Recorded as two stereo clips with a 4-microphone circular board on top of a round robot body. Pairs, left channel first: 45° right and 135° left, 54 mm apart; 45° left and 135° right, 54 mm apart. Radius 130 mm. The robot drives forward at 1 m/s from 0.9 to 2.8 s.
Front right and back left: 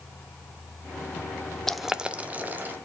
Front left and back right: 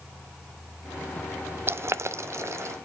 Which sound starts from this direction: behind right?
Boiling, at 1.7 s.